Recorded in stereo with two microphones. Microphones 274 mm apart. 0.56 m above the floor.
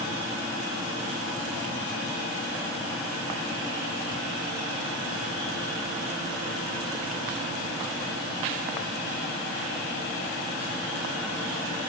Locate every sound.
Only background noise.